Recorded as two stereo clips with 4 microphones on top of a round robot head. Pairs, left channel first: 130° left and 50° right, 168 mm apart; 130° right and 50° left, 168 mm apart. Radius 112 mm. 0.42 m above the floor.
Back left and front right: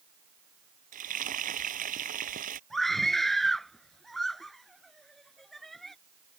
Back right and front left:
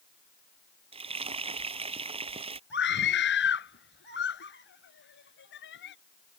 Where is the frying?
10° right.